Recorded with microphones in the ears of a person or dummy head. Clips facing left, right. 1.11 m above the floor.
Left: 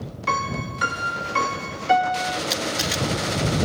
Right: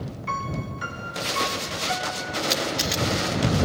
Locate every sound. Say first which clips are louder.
0.3 s a piano: left 5 dB; 75° left (ahead or behind)
2.5 s a camera shutter: even; centre (ahead or behind)